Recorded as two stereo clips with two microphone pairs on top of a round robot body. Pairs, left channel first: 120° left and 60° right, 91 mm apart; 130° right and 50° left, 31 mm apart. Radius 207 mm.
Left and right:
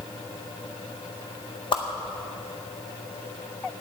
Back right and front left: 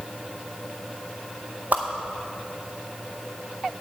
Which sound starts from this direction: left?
A whoosh, at 1.7 s.